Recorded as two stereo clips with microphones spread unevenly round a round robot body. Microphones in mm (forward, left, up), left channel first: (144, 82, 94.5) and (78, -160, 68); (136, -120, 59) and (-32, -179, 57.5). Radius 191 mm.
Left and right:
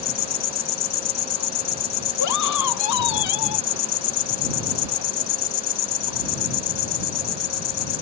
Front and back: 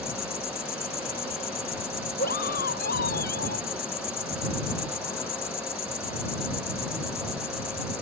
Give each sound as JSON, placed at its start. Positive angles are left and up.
{"t": 0.0, "sound": "an insect", "azimuth_deg": 85}
{"t": 2.2, "sound": "a scream", "azimuth_deg": 80}